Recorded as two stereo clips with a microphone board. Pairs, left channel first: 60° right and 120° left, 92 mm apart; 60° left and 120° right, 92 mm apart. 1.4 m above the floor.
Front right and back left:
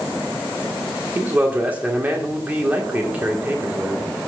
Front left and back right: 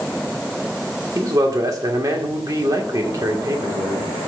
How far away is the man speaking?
About 1.8 m.